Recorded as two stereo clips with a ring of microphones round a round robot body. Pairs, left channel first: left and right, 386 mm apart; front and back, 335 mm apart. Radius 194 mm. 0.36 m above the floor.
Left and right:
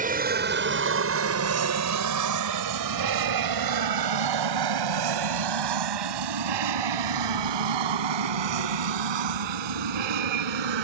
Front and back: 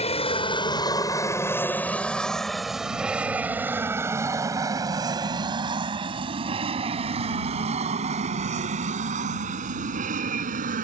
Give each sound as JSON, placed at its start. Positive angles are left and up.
{"t": 0.0, "sound": "an aircraft", "azimuth_deg": -50}